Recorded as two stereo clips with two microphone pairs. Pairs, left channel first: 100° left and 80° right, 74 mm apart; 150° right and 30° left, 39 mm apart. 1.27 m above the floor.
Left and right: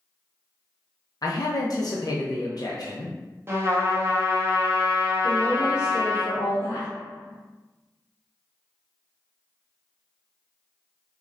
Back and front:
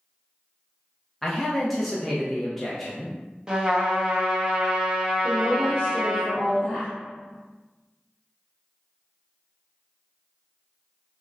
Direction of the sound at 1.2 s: 130° left.